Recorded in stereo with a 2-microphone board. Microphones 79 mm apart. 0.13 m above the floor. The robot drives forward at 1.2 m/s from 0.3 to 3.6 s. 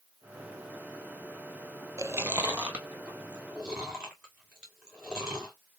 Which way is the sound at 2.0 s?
45° right (ahead or behind).